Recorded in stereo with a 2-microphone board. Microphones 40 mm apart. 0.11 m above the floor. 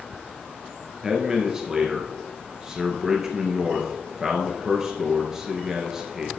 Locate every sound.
1.0 s a man speaking: 15° right (ahead or behind), 1.5 m